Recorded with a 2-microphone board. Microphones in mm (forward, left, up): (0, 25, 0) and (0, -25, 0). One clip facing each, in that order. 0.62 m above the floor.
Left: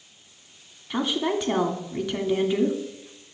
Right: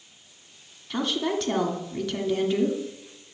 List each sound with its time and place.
0.9 s a woman speaking: 15° left (ahead or behind), 1.1 m